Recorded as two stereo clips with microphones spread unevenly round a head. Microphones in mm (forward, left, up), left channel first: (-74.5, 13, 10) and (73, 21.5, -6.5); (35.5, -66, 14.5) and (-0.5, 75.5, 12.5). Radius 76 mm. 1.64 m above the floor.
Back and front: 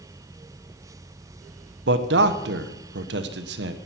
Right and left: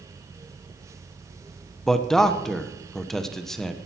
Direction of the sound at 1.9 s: 10° left.